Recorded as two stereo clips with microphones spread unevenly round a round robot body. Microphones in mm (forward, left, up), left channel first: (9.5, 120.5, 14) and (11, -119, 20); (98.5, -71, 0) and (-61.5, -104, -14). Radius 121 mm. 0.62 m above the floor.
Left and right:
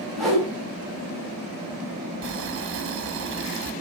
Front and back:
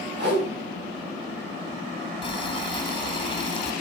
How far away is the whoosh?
About 4.5 m.